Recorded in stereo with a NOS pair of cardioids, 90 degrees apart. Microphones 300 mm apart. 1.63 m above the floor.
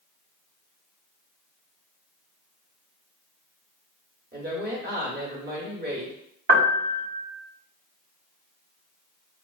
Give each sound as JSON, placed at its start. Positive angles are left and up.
{"t": 4.3, "sound": "a woman speaking", "azimuth_deg": -35, "distance_m": 1.2}
{"t": 6.5, "sound": "a piano", "azimuth_deg": -35, "distance_m": 1.2}